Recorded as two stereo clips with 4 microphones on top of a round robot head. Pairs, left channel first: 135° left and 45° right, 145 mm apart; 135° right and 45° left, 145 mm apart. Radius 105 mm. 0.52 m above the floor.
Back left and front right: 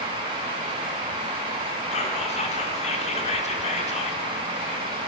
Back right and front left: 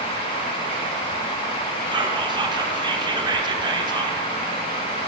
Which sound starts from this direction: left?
Whispering, at 1.9 s.